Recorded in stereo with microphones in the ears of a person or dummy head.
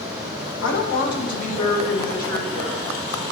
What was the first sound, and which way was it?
A woman speaking, 70° left (ahead or behind).